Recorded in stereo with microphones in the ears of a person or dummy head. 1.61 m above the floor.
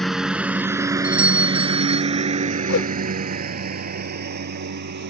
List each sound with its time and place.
0.0 s a lawn mower: 5° left (ahead or behind); by 5.1 s 55° right (ahead or behind)
1.0 s a doorbell: 10° right (ahead or behind)
2.7 s a whoosh: 70° left (ahead or behind)